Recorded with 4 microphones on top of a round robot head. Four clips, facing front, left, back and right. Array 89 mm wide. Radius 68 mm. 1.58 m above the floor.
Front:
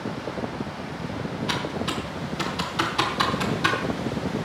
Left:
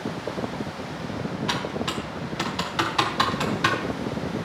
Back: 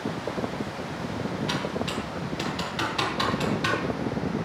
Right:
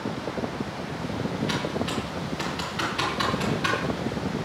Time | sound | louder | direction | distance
1.5 | typing on a keyboard | even, front 1 dB | 75° left | 3.5 m